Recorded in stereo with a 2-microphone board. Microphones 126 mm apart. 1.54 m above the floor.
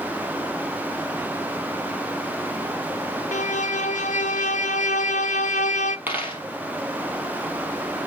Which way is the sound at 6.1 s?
15° right (ahead or behind).